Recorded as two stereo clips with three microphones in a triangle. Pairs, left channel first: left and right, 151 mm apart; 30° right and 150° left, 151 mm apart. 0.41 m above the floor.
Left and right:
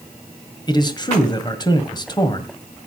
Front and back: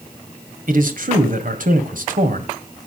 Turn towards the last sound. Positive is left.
turn(degrees=145)